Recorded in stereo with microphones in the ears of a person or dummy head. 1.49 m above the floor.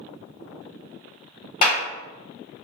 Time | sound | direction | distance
1.6 | a clap | 50° left (ahead or behind) | 0.9 m